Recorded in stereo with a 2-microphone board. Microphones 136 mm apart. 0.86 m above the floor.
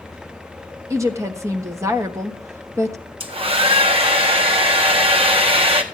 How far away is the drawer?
I don't hear a drawer.